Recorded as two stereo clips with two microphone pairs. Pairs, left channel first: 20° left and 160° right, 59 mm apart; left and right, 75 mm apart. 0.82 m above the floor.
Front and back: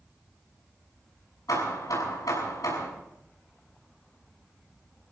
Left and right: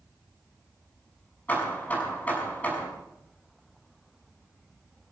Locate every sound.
1.5 s hammering: 20° left, 7 m